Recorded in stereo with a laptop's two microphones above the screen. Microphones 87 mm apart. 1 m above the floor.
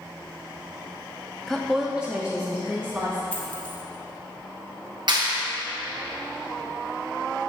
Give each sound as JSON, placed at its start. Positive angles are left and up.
{"t": 1.5, "sound": "a woman speaking", "side_deg": 5, "distance_m": 0.6}
{"t": 3.3, "sound": "a dropped coin", "side_deg": 15, "distance_m": 0.8}
{"t": 5.1, "sound": "a clap", "side_deg": -60, "distance_m": 1.0}